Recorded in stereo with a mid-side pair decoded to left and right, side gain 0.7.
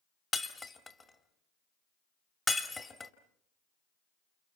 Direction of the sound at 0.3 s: 15° left.